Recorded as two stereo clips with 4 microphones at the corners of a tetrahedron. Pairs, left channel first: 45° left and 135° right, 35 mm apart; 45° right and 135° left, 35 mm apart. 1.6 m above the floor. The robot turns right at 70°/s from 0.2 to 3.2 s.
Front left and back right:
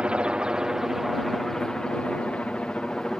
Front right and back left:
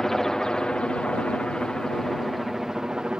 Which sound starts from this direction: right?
A helicopter, at 0.0 s.